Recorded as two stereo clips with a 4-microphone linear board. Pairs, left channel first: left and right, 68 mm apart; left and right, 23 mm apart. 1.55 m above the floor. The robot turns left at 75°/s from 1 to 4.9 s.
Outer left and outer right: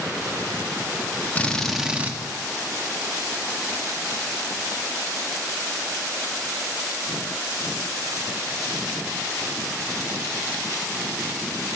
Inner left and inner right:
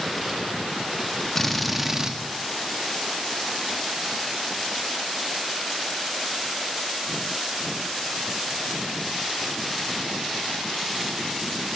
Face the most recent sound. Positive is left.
turn(degrees=120)